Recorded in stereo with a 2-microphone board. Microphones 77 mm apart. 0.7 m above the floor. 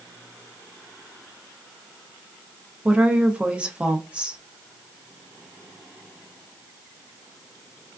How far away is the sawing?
No sawing in this recording.